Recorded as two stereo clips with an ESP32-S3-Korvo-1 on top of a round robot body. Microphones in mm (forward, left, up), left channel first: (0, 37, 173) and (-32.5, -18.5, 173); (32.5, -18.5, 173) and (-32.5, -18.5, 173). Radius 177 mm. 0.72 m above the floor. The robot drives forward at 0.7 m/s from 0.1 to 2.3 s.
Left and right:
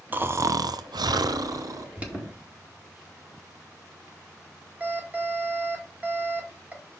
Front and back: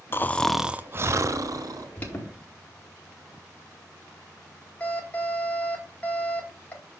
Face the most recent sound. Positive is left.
turn(degrees=-65)